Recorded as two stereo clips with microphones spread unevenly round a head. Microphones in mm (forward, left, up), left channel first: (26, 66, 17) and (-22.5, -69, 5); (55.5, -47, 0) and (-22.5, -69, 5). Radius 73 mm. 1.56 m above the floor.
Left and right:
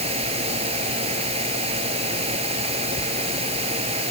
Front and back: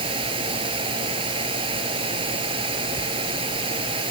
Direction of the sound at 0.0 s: 160° right.